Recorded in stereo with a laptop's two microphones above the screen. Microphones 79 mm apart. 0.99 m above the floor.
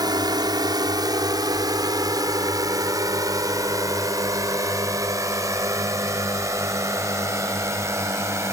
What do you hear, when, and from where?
0.0 s a drone: 60° right (ahead or behind); by 8.5 s 35° right (ahead or behind)